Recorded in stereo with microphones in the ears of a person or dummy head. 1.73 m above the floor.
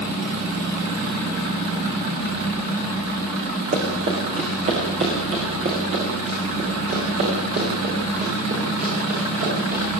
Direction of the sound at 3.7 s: 45° right (ahead or behind).